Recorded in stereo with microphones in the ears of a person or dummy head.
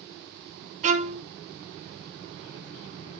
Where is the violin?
45° right (ahead or behind), 1.3 m.